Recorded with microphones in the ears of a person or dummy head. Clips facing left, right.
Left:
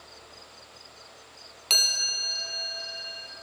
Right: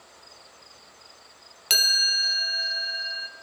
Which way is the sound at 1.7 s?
20° right (ahead or behind).